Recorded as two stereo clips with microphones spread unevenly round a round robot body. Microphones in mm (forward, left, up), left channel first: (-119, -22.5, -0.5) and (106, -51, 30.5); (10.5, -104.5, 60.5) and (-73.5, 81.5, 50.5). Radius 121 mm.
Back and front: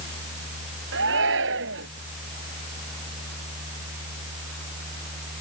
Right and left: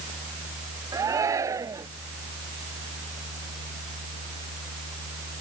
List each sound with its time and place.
0.9 s a shout: 35° left